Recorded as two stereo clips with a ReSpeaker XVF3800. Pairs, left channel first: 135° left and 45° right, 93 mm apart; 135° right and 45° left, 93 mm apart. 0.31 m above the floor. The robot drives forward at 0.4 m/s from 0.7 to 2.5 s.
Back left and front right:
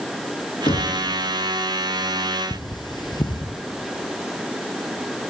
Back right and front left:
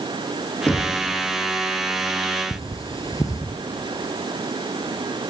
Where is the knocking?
150° left, 3 m.